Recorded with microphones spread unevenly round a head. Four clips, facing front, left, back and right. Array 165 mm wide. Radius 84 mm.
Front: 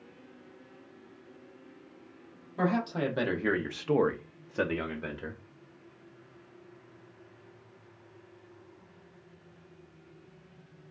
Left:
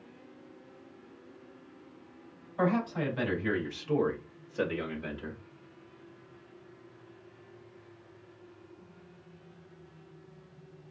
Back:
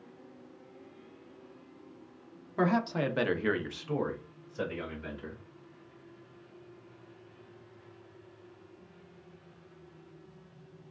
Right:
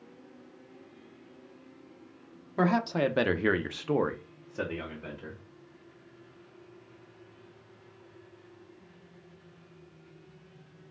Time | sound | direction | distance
2.6 | a man speaking | 100° right | 0.9 m